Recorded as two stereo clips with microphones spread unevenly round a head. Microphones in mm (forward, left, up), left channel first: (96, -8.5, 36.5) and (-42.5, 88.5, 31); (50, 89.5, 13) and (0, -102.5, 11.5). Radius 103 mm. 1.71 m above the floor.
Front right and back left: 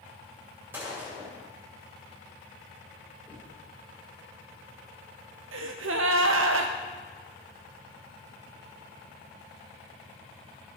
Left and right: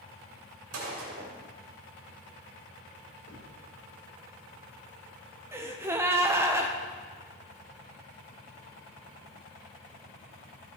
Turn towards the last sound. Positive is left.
turn(degrees=175)